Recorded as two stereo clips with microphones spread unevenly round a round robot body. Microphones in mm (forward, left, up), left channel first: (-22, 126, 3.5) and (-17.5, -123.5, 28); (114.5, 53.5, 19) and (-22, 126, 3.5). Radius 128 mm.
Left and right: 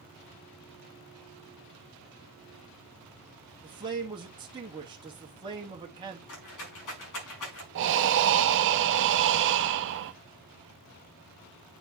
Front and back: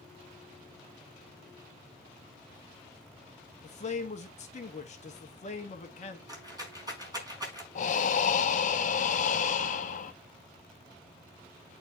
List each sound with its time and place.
3.6 s a man speaking: 20° right, 1.3 m
6.3 s a rattle: 85° left, 5 m
7.8 s breathing: 60° right, 0.6 m